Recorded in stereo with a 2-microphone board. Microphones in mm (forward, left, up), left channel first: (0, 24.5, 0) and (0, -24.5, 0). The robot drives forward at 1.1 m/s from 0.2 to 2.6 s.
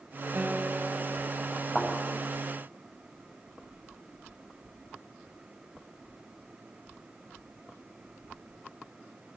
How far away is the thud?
About 7.5 m.